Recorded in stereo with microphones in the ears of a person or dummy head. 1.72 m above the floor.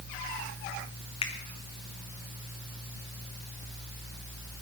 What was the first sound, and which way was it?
A finger snap, 35° left (ahead or behind).